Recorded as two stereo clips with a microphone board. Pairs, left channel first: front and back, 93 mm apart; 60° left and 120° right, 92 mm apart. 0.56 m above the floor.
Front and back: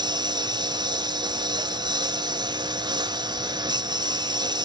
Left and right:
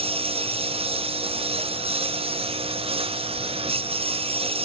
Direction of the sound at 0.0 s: 135° right.